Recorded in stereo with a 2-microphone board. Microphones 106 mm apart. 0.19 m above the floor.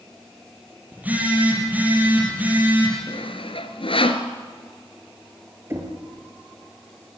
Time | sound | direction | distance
0.9 | a phone buzzing | 15° right (ahead or behind) | 6 m
3.1 | sawing | 65° left (ahead or behind) | 1.5 m
5.7 | knocking | 25° right (ahead or behind) | 4 m